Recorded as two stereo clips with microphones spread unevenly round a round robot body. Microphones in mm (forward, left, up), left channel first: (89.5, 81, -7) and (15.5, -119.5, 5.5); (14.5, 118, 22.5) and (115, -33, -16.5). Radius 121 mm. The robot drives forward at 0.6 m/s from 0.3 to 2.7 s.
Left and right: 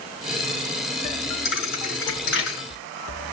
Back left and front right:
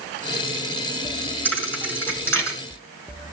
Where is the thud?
45° left, 5 m; by 2.6 s 50° left, 4.5 m.